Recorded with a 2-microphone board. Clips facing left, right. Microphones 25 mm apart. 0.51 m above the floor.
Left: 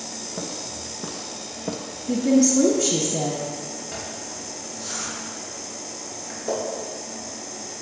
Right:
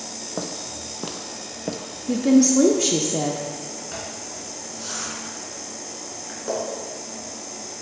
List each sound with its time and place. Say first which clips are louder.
0.4 s footsteps: right 3 dB; 60° right (ahead or behind), 1.3 m; by 1.8 s 10° right (ahead or behind), 0.6 m
2.1 s a woman speaking: right 2 dB; 30° right (ahead or behind), 0.7 m
3.9 s a zipper: even; 25° right (ahead or behind), 3 m